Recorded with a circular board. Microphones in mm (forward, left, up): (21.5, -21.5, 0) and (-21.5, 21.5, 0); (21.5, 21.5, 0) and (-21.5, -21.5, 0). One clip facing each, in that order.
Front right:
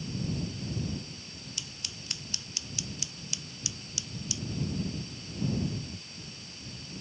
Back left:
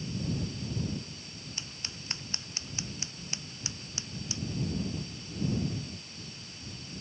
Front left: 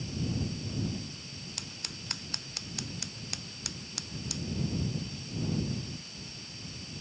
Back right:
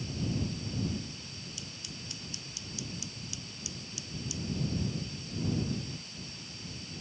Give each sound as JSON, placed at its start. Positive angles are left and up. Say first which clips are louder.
{"t": 1.6, "sound": "scissors", "louder": "even, front left 1 dB", "azimuth_deg": 80}